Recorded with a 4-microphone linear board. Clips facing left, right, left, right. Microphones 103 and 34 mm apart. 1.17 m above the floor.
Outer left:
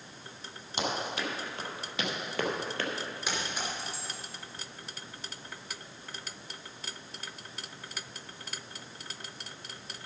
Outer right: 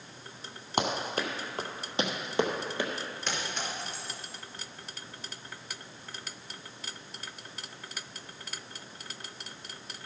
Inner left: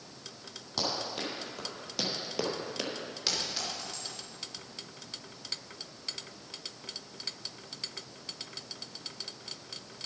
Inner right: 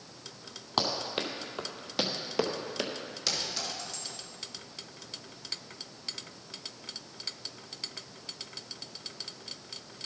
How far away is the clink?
About 3 m.